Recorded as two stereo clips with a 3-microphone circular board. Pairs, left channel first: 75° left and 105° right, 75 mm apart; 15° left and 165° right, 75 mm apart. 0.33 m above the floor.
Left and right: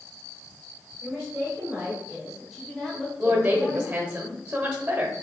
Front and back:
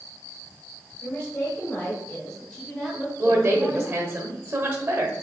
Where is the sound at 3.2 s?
155° right, 1.0 m.